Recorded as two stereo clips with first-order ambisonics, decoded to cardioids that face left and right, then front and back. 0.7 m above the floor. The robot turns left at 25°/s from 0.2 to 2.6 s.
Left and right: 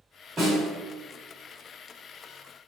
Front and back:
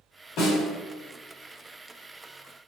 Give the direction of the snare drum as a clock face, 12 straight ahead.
1 o'clock.